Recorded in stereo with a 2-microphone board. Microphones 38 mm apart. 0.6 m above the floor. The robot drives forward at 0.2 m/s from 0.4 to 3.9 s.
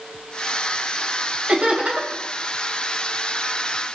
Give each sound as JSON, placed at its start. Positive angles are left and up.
{"t": 1.5, "sound": "laughter", "side_deg": -35, "distance_m": 3.0}